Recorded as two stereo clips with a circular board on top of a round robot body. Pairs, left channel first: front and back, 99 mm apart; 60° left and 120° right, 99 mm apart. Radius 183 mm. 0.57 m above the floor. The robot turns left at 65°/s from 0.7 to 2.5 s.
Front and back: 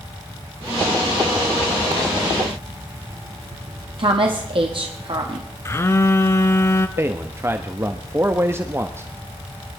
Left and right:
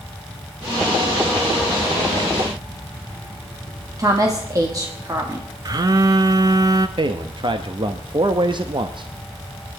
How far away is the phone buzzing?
About 0.5 m.